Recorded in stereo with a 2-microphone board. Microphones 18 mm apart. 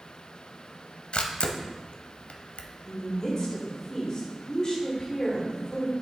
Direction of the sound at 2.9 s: 35° left (ahead or behind).